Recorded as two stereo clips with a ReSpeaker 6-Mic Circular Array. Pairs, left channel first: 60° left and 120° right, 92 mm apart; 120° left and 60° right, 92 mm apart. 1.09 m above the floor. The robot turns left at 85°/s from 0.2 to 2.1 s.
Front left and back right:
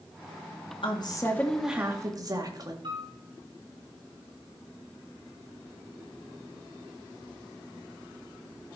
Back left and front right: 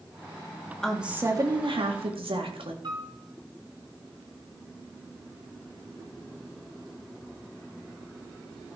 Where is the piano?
95° right, 2.5 m.